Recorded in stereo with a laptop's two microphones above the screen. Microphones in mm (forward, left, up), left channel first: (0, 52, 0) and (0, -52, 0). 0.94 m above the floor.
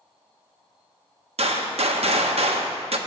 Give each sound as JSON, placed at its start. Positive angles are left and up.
{"t": 1.4, "sound": "a gunshot", "side_deg": -80, "distance_m": 0.6}